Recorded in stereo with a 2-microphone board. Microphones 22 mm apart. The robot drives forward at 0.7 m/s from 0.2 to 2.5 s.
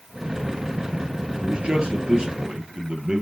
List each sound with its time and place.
1.4 s a man speaking: 50° right (ahead or behind), 3 m; by 3.2 s 40° right (ahead or behind), 3.5 m